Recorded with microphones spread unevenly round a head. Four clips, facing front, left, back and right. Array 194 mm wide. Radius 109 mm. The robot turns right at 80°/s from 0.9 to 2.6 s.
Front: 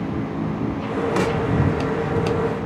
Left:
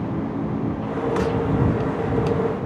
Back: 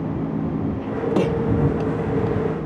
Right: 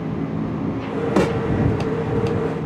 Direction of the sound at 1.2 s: 120° right.